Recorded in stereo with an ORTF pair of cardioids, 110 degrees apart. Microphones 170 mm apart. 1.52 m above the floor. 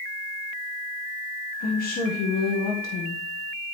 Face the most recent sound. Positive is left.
turn(degrees=60)